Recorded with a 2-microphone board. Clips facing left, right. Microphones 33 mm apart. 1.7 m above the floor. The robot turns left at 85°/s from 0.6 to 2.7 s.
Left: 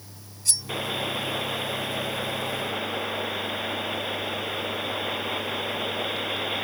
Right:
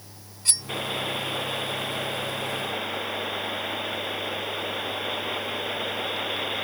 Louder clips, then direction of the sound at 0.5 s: Right 1 dB; 45° right (ahead or behind).